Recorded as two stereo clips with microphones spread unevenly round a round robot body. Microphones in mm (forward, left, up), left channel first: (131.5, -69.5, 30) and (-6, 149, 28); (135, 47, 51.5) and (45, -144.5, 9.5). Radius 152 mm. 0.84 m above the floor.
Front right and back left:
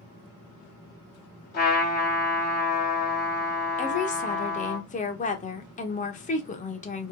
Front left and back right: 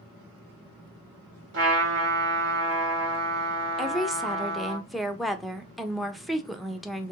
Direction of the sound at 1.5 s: 120° right.